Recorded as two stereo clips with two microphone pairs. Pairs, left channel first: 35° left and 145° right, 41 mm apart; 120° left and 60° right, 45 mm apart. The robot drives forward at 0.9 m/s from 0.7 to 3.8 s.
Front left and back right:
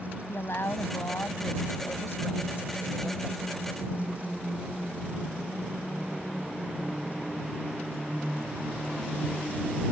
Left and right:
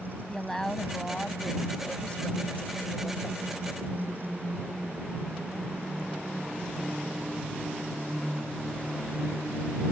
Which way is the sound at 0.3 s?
40° left.